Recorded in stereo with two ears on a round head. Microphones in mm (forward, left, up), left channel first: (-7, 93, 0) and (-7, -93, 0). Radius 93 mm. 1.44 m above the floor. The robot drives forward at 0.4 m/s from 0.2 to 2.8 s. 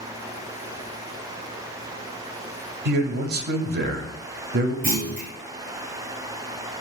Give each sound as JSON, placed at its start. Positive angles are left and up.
{"t": 2.9, "sound": "a man speaking", "side_deg": -50, "distance_m": 0.5}
{"t": 4.8, "sound": "a clunk", "side_deg": -45, "distance_m": 1.7}